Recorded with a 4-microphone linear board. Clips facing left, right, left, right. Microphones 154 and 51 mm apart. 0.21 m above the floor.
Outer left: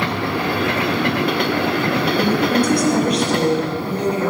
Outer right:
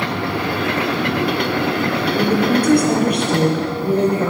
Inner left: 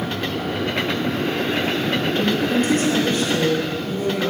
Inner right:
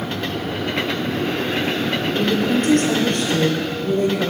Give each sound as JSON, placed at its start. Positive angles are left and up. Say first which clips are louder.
{"t": 2.1, "sound": "a woman speaking", "louder": "outer right 2 dB, inner right 2 dB", "side_deg": -55, "distance_m": 6.0}